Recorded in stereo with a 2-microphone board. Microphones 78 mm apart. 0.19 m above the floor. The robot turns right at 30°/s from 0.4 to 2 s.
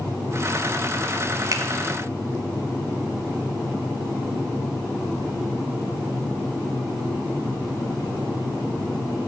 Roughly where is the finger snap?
Right.